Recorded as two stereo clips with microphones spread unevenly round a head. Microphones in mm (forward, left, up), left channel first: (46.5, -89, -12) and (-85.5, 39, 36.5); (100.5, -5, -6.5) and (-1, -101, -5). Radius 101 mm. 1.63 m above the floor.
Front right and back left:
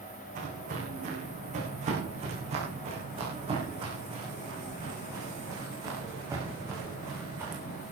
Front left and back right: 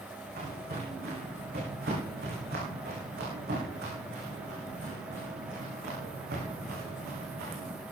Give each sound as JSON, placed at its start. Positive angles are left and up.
{"t": 0.3, "sound": "footsteps", "azimuth_deg": 180, "distance_m": 8.5}